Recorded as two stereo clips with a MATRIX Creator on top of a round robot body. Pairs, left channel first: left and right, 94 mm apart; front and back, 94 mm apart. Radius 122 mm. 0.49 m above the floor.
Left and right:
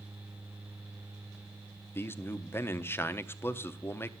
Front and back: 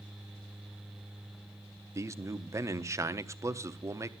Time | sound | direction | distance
1.9 | a man speaking | 140° left | 0.9 m